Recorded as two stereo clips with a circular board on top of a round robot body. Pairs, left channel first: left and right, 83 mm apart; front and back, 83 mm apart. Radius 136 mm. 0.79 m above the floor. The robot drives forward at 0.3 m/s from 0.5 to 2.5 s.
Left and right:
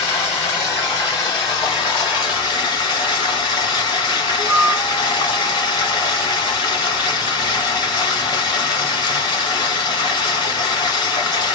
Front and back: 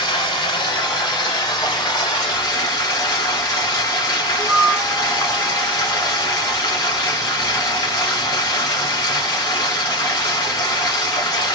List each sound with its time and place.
0.0 s running water: 35° left, 2.0 m; by 11.6 s 50° left, 1.5 m
4.4 s a flute: 145° left, 0.6 m